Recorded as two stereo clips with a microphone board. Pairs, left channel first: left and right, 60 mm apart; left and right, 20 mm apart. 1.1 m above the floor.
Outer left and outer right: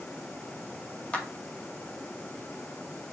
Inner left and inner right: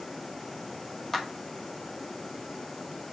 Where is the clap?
20° left (ahead or behind), 1.7 m.